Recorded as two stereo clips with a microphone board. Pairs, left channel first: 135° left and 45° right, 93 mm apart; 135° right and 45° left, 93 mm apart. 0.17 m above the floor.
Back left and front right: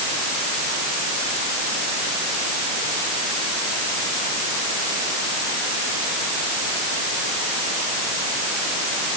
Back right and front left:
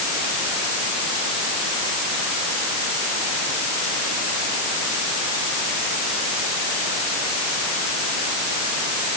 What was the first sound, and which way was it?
Only background noise.